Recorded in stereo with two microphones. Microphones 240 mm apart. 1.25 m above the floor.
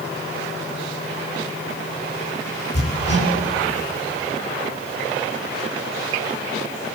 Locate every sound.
2.7 s hammering: 85° left, 8 m